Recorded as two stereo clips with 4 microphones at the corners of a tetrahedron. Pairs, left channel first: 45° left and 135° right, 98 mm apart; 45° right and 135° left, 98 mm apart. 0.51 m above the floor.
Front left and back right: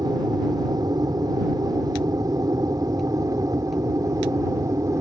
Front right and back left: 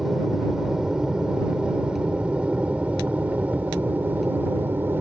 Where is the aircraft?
140° right; by 5.0 s 165° right.